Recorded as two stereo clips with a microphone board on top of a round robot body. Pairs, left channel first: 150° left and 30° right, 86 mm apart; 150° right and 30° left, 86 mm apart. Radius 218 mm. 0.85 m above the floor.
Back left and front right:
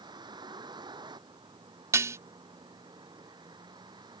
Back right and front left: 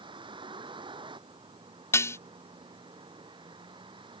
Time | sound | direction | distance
0.0 | a vehicle | 5° left | ?
1.9 | dishes clattering | 90° right | ?